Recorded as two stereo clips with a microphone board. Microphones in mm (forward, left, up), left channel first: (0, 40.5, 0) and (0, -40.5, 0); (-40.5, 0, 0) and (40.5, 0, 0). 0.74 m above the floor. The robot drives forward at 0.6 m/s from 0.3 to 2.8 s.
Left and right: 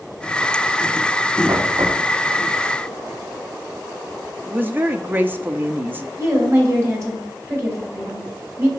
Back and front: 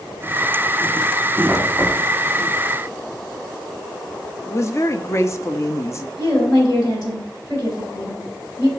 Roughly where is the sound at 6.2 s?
Behind right.